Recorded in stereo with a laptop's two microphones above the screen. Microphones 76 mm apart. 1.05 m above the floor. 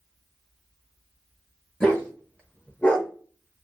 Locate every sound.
1.8 s a dog barking: 15° left (ahead or behind), 1.4 m; by 3.1 s 10° left (ahead or behind), 0.7 m